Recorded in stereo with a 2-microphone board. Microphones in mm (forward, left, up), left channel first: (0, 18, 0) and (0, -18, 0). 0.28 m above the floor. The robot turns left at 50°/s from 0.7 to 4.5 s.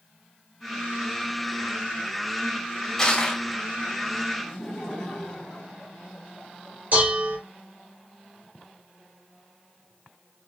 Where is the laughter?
20° left (ahead or behind), 1.8 m.